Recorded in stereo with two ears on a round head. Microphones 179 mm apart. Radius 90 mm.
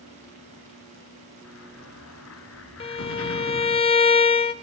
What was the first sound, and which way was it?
An explosion, 85° left.